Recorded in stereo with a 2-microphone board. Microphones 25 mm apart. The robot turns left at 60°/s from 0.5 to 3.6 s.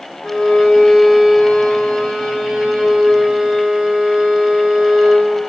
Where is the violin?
85° left, 3.5 m; by 5.3 s 100° right, 3.5 m.